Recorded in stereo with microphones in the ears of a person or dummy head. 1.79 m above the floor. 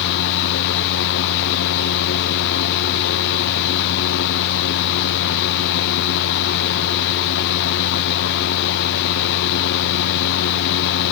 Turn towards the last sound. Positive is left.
turn(degrees=60)  # may be behind; listen again after turning